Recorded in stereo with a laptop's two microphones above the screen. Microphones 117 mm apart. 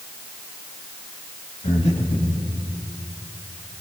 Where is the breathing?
70° left (ahead or behind), 1.9 m.